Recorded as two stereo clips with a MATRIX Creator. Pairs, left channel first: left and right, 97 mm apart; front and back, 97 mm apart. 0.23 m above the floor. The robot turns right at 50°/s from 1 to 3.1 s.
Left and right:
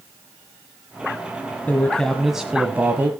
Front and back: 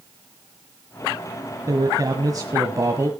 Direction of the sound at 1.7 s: 150° left.